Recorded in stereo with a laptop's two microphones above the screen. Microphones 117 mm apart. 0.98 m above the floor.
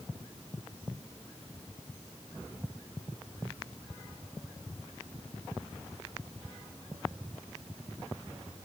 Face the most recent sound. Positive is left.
No sound to turn to.